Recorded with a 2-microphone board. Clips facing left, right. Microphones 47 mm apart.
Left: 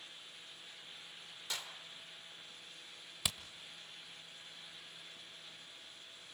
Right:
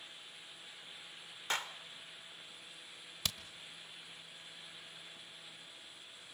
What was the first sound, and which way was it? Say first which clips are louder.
A clap: right 7 dB; 50° right (ahead or behind).